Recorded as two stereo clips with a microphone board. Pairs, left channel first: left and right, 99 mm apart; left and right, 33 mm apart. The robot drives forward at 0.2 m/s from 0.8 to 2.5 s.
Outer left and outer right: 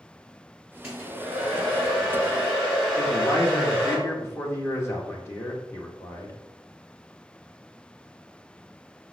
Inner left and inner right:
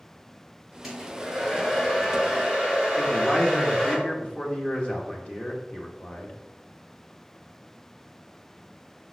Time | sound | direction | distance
0.8 | a hair dryer | 5° right (ahead or behind) | 3.5 m
3.0 | a man speaking | 30° left (ahead or behind) | 1.5 m